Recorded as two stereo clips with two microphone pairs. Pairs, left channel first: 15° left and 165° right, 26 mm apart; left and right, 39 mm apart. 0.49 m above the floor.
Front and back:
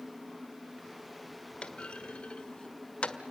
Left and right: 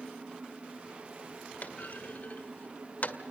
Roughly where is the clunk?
Ahead left.